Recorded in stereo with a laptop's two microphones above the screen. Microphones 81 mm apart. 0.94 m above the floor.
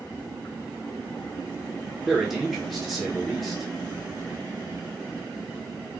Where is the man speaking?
Centre (ahead or behind), 0.7 m.